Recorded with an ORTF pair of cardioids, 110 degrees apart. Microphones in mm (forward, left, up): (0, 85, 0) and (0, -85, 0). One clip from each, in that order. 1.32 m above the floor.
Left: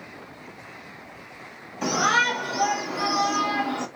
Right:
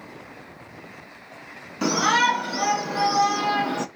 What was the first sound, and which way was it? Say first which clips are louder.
A shout: right 1 dB; 50° right.